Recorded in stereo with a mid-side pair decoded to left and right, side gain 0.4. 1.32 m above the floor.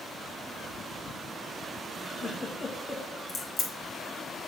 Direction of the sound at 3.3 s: 60° left.